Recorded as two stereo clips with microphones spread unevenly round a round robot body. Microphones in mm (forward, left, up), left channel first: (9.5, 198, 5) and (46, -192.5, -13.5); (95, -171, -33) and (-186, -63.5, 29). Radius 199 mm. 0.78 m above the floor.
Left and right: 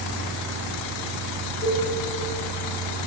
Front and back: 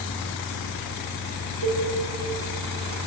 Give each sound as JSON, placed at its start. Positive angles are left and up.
{"t": 1.6, "sound": "a cowbell", "azimuth_deg": 175, "distance_m": 6.5}